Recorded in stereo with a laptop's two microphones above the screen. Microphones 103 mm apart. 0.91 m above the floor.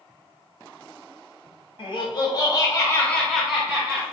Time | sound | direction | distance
1.8 | laughter | 55° left (ahead or behind) | 1.2 m